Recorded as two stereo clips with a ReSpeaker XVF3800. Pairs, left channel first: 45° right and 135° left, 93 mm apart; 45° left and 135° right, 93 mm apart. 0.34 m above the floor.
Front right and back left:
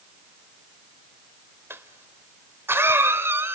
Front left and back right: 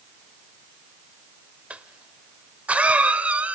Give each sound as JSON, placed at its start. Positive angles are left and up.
{"t": 1.7, "sound": "a cough", "azimuth_deg": 165, "distance_m": 0.9}